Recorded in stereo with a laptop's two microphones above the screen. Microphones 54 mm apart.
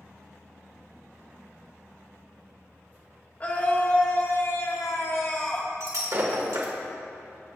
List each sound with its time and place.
3.4 s a scream: 30° left (ahead or behind), 3 m
5.8 s breaking glass: 70° right (ahead or behind), 1.8 m